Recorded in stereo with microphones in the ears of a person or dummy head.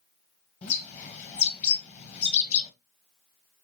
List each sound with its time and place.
0.6 s a bird: 40° left (ahead or behind), 1.0 m